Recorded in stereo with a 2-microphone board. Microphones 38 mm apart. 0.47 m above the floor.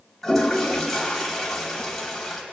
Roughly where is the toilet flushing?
Centre.